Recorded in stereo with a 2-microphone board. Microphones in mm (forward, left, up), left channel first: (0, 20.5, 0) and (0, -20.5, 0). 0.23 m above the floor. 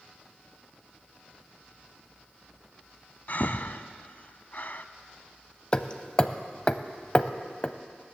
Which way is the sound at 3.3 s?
55° left (ahead or behind).